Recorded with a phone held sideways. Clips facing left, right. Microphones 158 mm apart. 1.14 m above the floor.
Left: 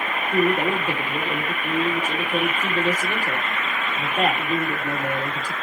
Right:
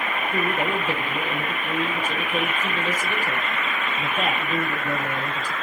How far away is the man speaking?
About 2.5 m.